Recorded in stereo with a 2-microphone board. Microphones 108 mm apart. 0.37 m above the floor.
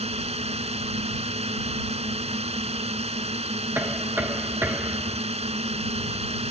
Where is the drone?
70° right (ahead or behind).